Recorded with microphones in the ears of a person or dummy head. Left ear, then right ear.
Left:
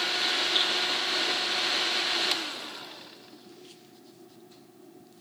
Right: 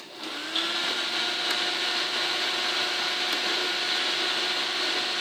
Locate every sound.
0.6 s dripping: 10° left (ahead or behind), 6 m